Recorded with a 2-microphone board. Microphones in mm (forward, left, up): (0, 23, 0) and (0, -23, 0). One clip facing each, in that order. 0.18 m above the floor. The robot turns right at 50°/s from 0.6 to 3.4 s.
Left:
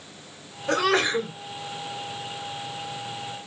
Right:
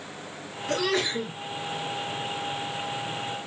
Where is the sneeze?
80° left, 2 m; by 1.3 s 110° left, 2 m.